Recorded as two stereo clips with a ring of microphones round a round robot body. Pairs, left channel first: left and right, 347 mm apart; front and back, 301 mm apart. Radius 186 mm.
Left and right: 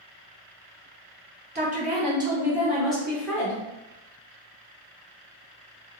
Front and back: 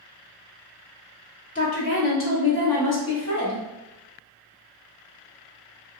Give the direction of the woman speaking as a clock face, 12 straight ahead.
1 o'clock.